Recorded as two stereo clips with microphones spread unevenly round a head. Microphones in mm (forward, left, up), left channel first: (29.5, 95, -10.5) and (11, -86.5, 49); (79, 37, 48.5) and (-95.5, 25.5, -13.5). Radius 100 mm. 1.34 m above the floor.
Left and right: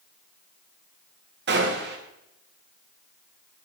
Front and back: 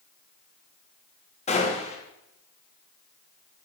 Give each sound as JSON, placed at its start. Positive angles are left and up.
{"t": 1.5, "sound": "a gunshot", "azimuth_deg": -60, "distance_m": 3.0}